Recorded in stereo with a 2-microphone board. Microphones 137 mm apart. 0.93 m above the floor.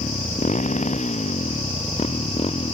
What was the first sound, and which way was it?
A motorcycle, 60° left (ahead or behind).